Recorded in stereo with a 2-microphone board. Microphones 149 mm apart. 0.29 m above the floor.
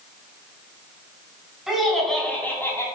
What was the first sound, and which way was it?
Laughter, 5° right (ahead or behind).